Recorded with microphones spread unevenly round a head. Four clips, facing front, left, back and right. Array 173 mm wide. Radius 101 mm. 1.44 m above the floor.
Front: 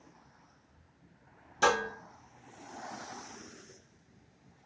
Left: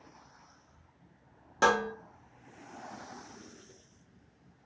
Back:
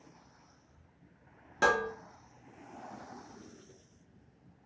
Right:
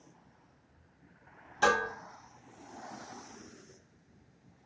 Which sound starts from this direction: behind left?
Dishes clattering, at 1.6 s.